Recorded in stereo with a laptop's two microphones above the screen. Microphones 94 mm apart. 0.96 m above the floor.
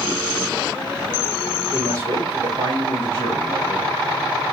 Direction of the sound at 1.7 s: 75° right (ahead or behind).